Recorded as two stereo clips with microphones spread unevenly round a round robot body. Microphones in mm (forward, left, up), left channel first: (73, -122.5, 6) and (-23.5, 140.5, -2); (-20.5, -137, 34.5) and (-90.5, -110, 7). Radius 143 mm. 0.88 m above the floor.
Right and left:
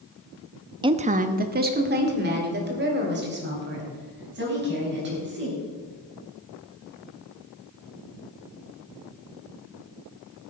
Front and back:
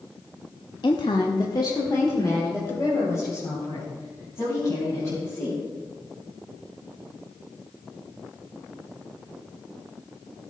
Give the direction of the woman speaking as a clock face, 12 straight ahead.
11 o'clock.